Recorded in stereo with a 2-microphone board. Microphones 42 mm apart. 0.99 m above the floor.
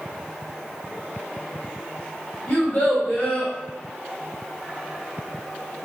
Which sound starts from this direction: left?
A child speaking, at 2.5 s.